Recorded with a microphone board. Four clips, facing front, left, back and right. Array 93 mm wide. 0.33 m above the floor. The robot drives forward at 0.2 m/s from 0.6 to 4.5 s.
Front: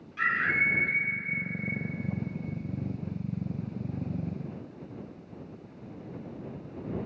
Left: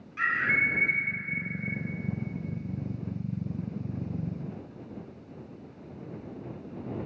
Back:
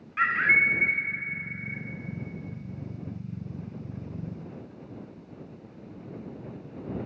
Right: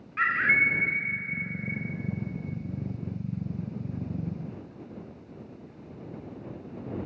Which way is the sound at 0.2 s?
140° right.